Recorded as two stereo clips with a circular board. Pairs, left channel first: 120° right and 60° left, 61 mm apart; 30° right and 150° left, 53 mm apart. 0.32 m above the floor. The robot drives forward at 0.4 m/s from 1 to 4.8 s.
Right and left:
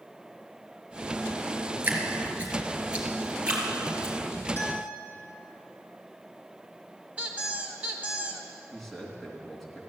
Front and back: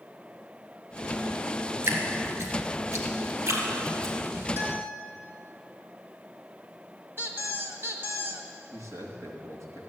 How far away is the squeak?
About 1.5 m.